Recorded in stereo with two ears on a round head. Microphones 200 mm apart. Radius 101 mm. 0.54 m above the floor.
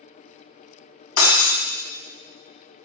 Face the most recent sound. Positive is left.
turn(degrees=85)